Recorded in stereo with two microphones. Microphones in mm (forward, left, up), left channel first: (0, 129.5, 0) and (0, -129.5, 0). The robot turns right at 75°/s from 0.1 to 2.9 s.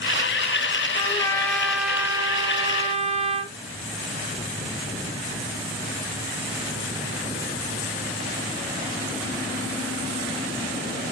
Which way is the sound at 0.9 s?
20° left (ahead or behind).